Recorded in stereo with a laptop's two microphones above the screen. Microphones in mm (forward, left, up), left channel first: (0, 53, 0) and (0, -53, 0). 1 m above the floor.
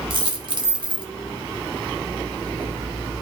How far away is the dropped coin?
About 1.2 m.